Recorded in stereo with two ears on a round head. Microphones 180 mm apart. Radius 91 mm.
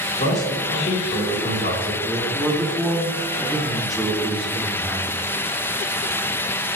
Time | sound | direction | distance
0.2 | a man speaking | 55° left (ahead or behind) | 3.5 m
2.0 | a man speaking | centre (ahead or behind) | 1.9 m